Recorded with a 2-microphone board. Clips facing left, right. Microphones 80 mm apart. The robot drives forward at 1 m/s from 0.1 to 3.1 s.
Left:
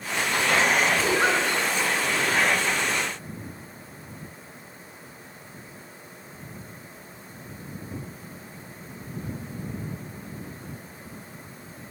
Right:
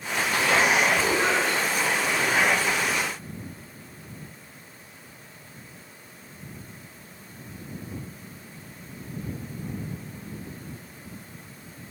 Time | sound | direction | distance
1.0 | a giggle | 50° left (ahead or behind) | 2.5 m